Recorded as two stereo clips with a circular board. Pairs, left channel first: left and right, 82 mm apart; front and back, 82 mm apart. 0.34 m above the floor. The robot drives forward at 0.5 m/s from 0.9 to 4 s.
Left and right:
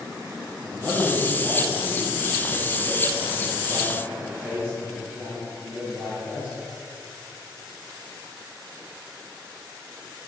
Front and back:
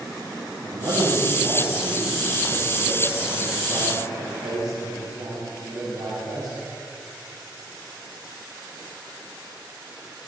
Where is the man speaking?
165° right, 5.5 m; by 6.6 s 170° right, 7 m.